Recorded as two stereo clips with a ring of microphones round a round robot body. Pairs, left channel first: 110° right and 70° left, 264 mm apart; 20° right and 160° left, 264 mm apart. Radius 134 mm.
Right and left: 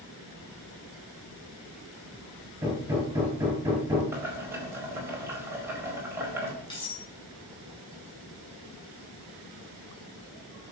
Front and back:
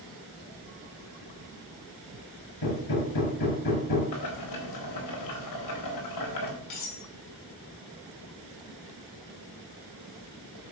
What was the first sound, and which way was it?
Hammering, 15° right.